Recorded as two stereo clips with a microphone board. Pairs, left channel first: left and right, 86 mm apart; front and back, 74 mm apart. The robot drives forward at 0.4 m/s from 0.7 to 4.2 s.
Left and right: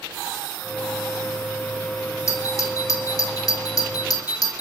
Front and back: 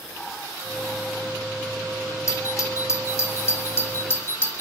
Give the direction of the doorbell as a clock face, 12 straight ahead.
11 o'clock.